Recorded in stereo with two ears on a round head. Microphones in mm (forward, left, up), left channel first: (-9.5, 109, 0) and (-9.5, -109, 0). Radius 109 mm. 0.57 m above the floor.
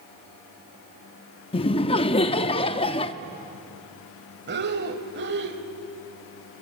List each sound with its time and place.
1.5 s laughter: 25° left (ahead or behind), 0.6 m
4.5 s breathing: 45° right (ahead or behind), 1.4 m